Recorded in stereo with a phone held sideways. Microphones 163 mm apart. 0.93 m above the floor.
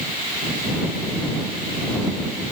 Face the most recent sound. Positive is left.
No sound to turn to.